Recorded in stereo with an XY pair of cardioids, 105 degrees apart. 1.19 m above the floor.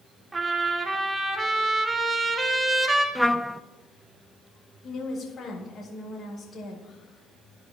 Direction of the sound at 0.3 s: 25° right.